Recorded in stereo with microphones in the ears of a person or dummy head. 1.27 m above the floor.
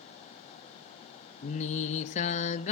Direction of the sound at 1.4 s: 40° left (ahead or behind).